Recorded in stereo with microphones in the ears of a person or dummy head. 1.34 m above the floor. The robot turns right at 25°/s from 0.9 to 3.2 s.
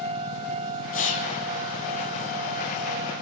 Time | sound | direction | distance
0.9 | whispering | 40° left (ahead or behind) | 2 m